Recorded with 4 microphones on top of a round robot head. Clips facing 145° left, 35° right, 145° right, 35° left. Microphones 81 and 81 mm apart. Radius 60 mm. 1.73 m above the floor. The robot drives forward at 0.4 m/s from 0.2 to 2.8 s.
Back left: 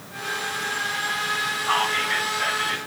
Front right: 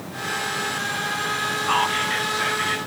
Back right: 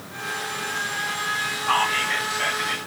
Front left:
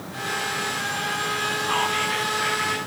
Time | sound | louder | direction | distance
1.7 | whispering | front right 1 dB, back right 4 dB | 155° right | 1.3 m